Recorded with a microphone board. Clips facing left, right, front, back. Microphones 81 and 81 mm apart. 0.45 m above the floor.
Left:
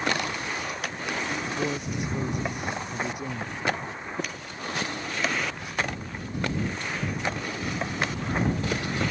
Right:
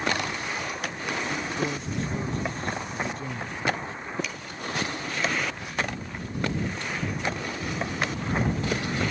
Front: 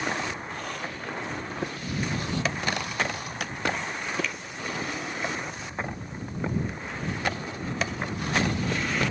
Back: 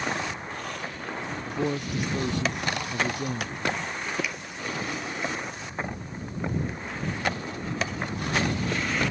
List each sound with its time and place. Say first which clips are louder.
1.5 s a man speaking: even, back 4 dB; 165° left
4.2 s a finger snap: right 1 dB, even; 105° left